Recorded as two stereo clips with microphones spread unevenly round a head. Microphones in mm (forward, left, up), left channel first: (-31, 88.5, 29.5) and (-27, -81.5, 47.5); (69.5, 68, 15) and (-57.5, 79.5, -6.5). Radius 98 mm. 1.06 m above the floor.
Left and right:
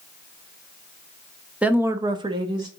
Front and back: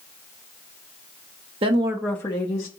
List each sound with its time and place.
1.6 s a woman speaking: 175° right, 0.8 m; by 2.7 s 25° right, 0.8 m